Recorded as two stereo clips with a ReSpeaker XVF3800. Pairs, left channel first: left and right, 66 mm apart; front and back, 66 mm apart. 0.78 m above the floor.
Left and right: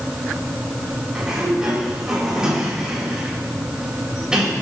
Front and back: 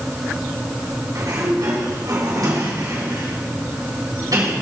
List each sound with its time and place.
1.1 s a sliding door: 170° right, 4.5 m